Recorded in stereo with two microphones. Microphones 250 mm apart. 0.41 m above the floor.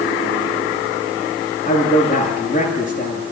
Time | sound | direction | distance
1.6 | a man speaking | 35° left (ahead or behind) | 9 m